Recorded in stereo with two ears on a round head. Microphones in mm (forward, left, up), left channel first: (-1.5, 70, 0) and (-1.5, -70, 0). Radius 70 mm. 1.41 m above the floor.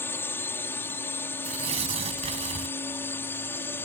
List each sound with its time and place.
0.0 s a drone: 15° left (ahead or behind)
1.4 s tearing paper: 40° right (ahead or behind)